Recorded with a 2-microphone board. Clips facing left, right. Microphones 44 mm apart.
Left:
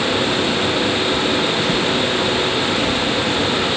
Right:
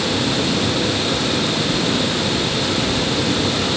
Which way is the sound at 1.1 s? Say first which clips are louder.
Left 2 dB; 80° left.